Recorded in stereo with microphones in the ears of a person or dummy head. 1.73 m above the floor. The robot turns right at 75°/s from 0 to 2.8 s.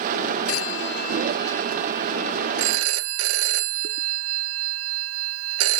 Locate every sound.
0.5 s a phone ringing: 90° left; by 5.8 s 100° right